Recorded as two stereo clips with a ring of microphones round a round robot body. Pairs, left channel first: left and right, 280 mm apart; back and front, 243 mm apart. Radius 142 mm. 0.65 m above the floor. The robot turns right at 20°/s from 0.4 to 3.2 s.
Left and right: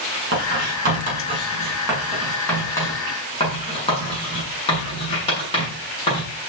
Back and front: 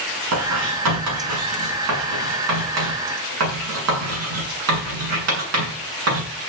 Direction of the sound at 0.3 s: 35° right.